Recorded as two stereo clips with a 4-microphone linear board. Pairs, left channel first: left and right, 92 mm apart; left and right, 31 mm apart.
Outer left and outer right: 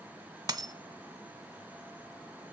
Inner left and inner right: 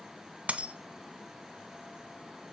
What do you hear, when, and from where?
0.5 s a dropped coin: 50° right (ahead or behind), 0.6 m